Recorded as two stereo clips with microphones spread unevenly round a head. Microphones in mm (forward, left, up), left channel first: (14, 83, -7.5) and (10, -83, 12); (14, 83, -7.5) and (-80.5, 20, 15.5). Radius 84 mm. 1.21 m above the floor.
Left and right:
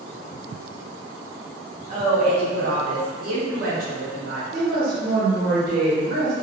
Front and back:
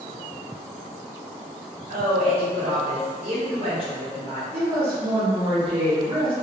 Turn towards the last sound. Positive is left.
turn(degrees=-70)